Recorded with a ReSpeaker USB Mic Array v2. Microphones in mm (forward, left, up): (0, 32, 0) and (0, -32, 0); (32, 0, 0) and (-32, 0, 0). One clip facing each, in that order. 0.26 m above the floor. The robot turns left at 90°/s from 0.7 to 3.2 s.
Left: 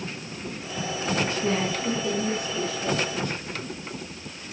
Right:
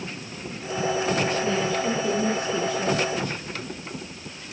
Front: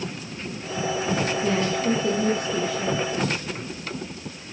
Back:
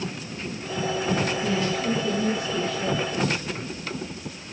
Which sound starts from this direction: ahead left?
A woman speaking, at 1.4 s.